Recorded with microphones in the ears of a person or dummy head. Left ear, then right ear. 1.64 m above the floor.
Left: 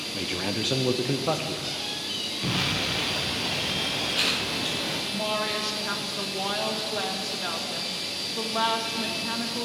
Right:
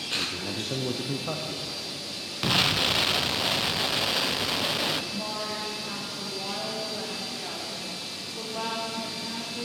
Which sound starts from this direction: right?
An explosion, at 2.4 s.